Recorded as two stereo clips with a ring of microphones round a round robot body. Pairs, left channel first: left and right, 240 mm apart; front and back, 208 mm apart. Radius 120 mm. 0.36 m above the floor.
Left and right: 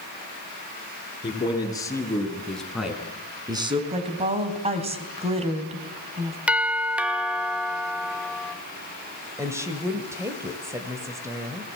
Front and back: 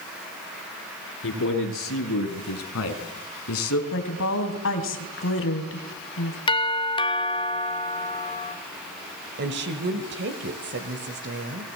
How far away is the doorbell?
About 1.3 m.